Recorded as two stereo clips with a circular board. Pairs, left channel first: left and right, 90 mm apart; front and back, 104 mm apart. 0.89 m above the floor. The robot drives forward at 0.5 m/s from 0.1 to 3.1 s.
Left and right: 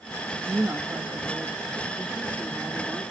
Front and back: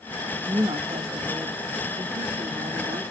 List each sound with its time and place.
0.3 s a woman speaking: 145° right, 0.8 m; by 3.0 s 170° right, 2 m